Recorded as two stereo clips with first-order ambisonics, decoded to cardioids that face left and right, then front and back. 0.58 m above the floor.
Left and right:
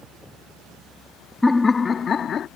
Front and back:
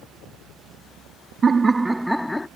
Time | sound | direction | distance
1.4 | laughter | 160° left | ?